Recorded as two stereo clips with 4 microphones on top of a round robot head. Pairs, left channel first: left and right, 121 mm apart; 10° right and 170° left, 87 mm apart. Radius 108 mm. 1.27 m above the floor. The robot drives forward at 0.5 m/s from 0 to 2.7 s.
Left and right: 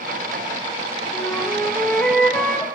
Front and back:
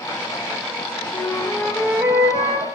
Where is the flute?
10° left, 0.6 m; by 2.6 s 175° left, 0.7 m.